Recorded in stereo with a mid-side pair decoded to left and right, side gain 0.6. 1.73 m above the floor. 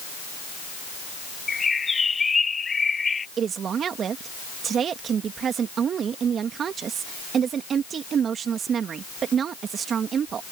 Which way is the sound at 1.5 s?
20° left.